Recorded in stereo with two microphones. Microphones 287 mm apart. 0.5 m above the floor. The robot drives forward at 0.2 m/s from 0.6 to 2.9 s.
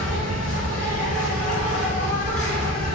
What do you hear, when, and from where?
0.0 s an insect: 30° left (ahead or behind), 1.6 m; by 3.0 s 25° left (ahead or behind), 2 m